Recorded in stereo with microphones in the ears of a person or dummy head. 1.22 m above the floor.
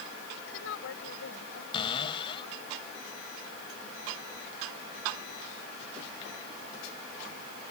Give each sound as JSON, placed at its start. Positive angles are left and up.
{"t": 0.4, "sound": "a woman speaking", "side_deg": 70}
{"t": 1.7, "sound": "a cupboard door", "side_deg": 30}